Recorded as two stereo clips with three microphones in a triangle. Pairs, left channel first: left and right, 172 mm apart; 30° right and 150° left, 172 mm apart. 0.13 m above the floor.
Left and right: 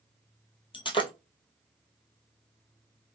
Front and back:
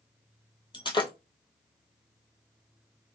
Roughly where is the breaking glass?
Ahead left.